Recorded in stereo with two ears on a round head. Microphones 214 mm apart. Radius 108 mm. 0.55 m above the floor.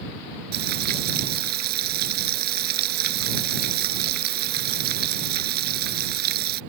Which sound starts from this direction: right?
Frying, at 0.5 s.